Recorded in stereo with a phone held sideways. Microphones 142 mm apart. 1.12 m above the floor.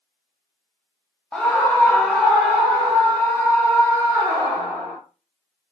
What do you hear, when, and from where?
1.3 s a scream: 5° left (ahead or behind), 0.6 m; by 5.0 s 10° left (ahead or behind), 3.5 m